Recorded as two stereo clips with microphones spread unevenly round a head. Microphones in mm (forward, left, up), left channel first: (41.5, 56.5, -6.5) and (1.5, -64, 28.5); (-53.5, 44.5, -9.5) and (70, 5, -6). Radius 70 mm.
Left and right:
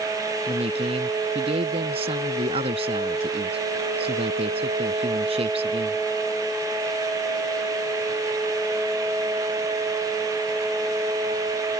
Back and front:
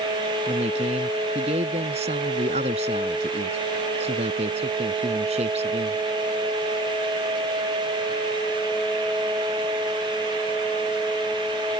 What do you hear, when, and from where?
0.5 s a man speaking: 65° right